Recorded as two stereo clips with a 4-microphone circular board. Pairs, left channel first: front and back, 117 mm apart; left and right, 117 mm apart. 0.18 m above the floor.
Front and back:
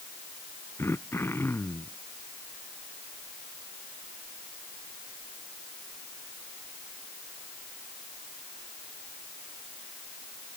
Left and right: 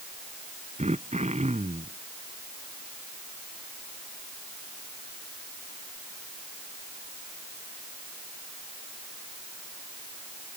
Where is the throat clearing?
70° right.